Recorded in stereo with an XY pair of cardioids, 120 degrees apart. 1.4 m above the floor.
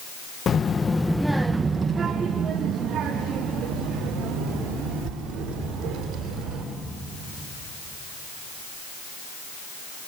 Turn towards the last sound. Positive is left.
turn(degrees=-75)